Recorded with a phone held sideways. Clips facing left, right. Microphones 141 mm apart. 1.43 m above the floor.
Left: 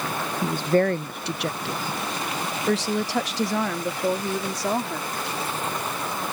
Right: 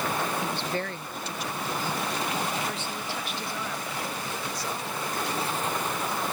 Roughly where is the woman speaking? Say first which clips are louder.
Left 10 dB; left.